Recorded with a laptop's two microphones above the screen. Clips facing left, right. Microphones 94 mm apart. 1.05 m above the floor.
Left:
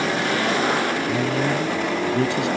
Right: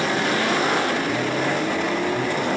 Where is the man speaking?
80° left.